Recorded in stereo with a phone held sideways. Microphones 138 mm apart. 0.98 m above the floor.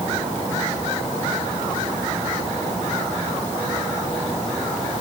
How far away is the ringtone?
I don't hear a ringtone.